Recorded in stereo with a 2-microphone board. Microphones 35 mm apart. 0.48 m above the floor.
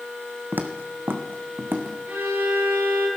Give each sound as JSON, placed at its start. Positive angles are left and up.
{"t": 0.5, "sound": "footsteps", "side_deg": -65, "distance_m": 1.2}
{"t": 2.1, "sound": "a violin", "side_deg": -65, "distance_m": 8.0}